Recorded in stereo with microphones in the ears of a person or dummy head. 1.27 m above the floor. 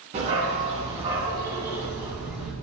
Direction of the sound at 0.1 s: 40° right (ahead or behind).